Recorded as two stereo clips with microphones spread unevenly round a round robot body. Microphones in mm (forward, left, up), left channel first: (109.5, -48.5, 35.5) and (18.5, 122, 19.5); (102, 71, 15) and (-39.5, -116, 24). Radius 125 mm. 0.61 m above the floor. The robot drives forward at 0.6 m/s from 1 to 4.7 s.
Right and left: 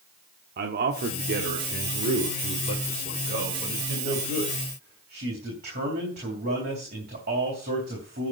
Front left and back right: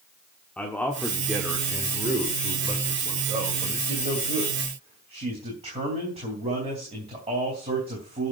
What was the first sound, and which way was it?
A man speaking, 135° left.